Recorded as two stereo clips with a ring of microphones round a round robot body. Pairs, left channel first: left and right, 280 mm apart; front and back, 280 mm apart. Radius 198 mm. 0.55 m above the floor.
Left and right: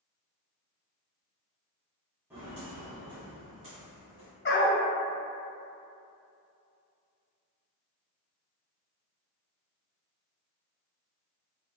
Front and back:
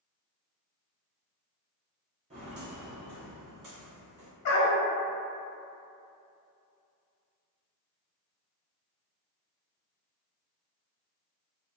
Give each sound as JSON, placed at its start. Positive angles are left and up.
{"t": 2.3, "sound": "footsteps", "azimuth_deg": -165, "distance_m": 0.5}
{"t": 4.5, "sound": "a dog barking", "azimuth_deg": 35, "distance_m": 0.8}